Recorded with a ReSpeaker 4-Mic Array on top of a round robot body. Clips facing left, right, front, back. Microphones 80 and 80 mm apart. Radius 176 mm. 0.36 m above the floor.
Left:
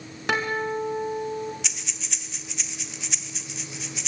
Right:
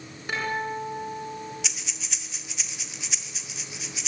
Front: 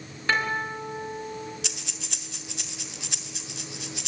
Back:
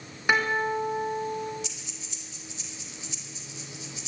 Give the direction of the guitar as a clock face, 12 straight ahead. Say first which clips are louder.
Left 3 dB, back 2 dB; 9 o'clock.